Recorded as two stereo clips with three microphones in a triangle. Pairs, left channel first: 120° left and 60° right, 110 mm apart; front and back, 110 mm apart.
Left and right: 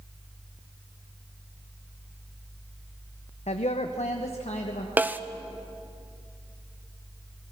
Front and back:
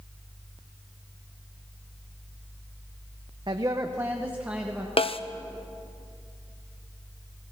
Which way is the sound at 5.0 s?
15° left.